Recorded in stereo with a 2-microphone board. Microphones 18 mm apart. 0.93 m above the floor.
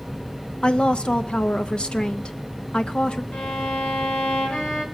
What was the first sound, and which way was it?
A woman speaking, 60° left (ahead or behind).